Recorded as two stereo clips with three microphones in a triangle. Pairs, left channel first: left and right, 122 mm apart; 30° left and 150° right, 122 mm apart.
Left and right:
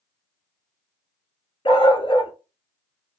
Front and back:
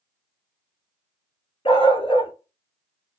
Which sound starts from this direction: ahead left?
A dog barking, at 1.6 s.